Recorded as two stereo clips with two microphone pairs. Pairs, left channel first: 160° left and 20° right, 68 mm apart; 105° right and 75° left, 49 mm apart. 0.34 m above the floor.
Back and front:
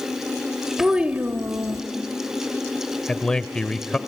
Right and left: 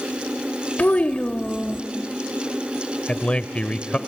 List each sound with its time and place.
0.8 s a child speaking: 100° right, 0.6 m; by 1.8 s 35° right, 0.9 m
3.1 s a man speaking: 135° right, 0.9 m